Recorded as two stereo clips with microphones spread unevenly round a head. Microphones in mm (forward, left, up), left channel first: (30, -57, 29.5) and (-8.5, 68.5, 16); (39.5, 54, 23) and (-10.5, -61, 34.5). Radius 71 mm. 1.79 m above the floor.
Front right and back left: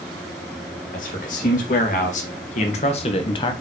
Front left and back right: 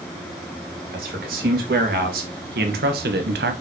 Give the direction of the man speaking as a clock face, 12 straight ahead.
4 o'clock.